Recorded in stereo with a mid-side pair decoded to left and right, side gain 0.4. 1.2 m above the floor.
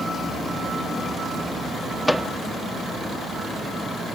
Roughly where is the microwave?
Ahead.